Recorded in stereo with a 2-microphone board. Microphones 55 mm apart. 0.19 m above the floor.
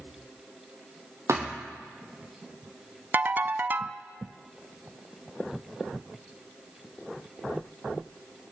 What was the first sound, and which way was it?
A thud, 55° right (ahead or behind).